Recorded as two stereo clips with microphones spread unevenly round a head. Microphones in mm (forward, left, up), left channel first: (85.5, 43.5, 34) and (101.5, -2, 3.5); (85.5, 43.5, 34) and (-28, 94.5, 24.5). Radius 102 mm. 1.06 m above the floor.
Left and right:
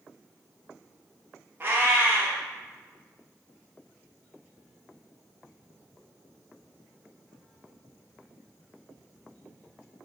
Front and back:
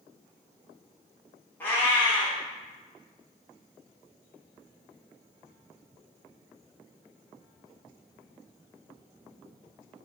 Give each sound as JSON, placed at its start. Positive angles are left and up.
{"t": 1.6, "sound": "a cat meowing", "azimuth_deg": 0, "distance_m": 0.7}